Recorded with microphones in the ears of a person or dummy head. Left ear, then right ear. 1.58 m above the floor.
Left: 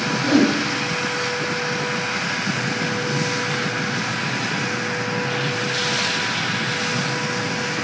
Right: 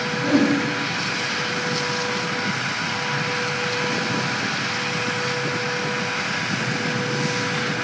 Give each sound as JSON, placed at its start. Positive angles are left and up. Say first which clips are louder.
{"t": 0.2, "sound": "a whoosh", "louder": "left 1 dB", "side_deg": 30, "distance_m": 2.5}